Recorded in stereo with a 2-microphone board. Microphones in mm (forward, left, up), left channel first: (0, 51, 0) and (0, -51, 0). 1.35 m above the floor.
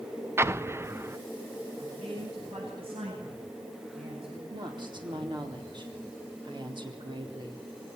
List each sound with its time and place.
0.4 s an explosion: 25° right (ahead or behind), 0.6 m
1.8 s a man speaking: 75° right (ahead or behind), 10 m
4.5 s a woman speaking: 55° right (ahead or behind), 4 m